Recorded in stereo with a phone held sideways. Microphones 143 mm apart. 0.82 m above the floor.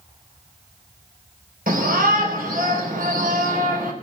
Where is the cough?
I don't hear a cough.